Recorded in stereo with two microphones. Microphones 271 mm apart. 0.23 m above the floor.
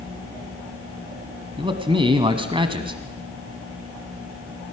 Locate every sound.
1.6 s a man speaking: 20° right (ahead or behind), 1.4 m